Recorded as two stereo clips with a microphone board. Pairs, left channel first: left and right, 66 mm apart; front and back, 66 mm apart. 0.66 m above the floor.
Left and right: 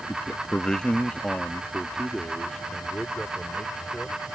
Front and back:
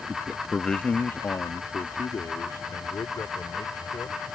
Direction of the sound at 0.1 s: 160° left.